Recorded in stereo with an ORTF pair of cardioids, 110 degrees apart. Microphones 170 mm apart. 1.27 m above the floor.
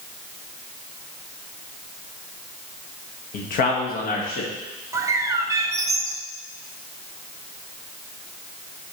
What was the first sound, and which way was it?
A man speaking, 55° left.